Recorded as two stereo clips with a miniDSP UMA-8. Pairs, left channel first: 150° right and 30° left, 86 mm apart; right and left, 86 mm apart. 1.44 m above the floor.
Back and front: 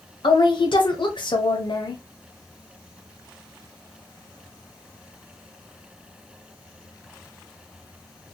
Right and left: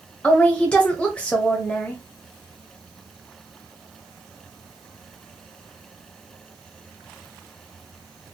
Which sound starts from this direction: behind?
A woman speaking, at 0.2 s.